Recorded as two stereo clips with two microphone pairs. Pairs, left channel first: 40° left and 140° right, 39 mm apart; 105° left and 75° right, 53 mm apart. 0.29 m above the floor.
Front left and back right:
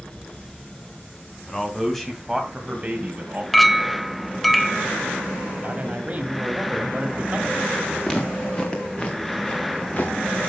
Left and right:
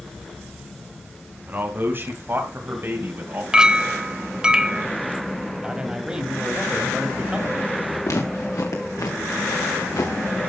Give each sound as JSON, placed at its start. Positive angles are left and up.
{"t": 1.5, "sound": "a man speaking", "azimuth_deg": -35, "distance_m": 2.5}
{"t": 3.5, "sound": "a clink", "azimuth_deg": -50, "distance_m": 0.6}
{"t": 5.6, "sound": "a man speaking", "azimuth_deg": -145, "distance_m": 2.0}
{"t": 8.0, "sound": "footsteps", "azimuth_deg": 115, "distance_m": 3.0}